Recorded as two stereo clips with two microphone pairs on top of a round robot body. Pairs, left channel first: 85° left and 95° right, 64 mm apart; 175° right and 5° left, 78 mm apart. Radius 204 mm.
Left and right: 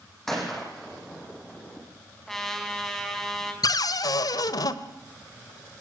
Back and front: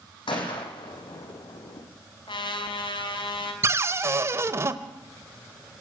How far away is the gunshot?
About 6.5 m.